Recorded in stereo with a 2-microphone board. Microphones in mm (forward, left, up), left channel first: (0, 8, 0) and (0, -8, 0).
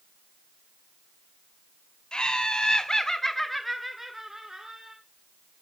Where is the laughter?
60° left (ahead or behind), 1.8 m; by 5.0 s 50° right (ahead or behind), 1.8 m.